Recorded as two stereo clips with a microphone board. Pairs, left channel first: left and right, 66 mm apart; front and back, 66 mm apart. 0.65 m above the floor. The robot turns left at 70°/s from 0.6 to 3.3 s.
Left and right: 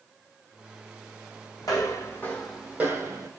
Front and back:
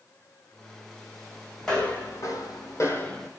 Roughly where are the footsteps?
Left.